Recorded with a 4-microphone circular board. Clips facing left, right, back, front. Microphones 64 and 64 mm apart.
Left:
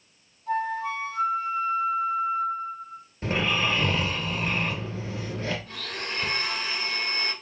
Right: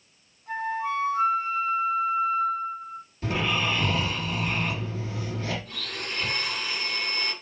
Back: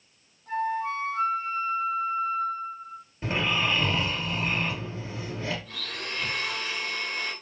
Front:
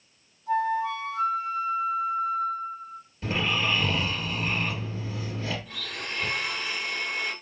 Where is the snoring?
125° left, 1.8 m.